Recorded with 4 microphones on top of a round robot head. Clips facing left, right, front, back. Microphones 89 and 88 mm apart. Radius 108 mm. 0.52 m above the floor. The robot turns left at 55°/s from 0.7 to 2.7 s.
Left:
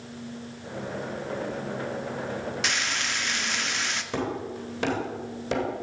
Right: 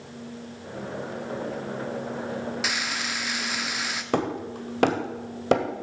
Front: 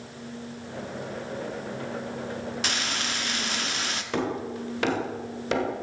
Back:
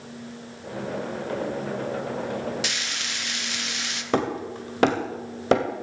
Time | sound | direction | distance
2.6 | frying | 5° right | 1.2 m
4.1 | hammering | 125° right | 1.6 m